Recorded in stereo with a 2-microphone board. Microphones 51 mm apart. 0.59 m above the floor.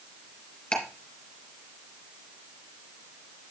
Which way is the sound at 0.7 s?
20° left (ahead or behind).